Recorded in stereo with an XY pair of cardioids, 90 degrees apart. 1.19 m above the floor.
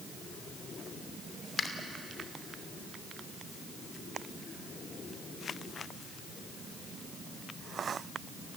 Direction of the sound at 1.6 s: 50° left.